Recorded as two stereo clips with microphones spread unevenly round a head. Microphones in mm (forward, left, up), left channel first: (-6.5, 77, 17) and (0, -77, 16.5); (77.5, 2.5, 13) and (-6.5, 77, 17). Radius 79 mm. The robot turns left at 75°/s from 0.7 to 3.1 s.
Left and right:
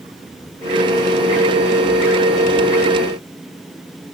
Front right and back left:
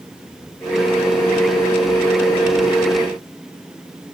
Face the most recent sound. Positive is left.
No sound to turn to.